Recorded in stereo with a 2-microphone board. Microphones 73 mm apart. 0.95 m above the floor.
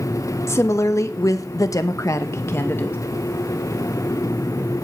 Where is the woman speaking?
40° left (ahead or behind), 1.2 m; by 3.0 s 30° left (ahead or behind), 1.0 m.